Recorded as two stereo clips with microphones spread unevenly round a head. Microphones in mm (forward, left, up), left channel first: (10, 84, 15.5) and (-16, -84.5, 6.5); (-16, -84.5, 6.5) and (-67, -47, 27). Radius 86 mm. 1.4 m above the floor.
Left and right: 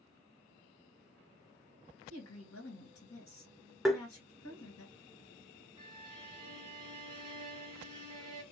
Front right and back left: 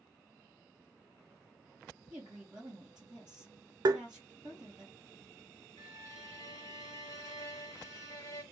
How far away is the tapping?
About 0.6 m.